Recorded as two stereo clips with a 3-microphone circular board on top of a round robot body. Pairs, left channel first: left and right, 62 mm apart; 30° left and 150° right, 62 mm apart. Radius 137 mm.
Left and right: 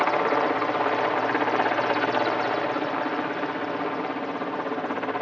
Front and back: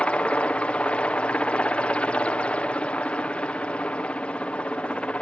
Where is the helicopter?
10° left.